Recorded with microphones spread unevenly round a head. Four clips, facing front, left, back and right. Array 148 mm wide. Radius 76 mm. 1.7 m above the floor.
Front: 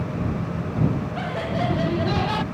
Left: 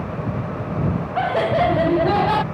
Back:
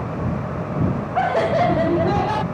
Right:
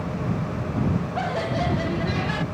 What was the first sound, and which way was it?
Laughter, 155° left.